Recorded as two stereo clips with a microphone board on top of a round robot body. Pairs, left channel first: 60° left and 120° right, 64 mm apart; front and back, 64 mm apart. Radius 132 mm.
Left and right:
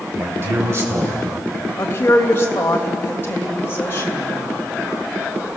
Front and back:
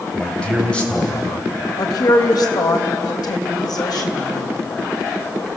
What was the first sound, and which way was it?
A man speaking, 75° right.